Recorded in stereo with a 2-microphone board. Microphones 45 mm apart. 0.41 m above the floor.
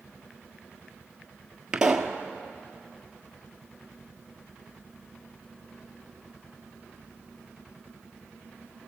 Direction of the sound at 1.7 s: 15° right (ahead or behind).